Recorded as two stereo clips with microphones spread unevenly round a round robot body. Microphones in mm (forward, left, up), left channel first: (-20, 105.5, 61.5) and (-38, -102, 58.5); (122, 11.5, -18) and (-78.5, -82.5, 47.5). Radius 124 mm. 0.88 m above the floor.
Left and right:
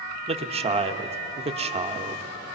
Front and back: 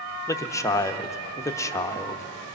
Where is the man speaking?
40° right, 1.0 m.